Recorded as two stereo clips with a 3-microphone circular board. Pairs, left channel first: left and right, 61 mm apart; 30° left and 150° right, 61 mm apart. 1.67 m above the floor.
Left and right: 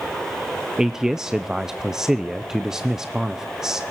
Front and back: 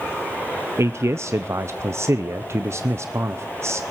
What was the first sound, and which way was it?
A man speaking, 165° right.